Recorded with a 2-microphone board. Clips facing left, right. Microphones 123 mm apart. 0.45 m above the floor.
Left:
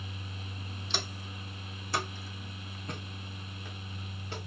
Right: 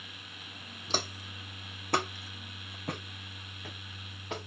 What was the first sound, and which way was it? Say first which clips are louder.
Footsteps: right 4 dB; 40° right (ahead or behind).